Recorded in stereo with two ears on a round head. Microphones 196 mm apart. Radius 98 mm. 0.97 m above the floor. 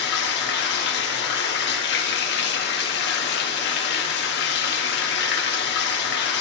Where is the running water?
50° left (ahead or behind), 1.5 m.